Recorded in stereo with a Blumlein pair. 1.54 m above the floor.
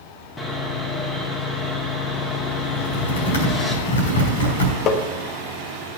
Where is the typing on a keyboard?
70° left, 3.5 m.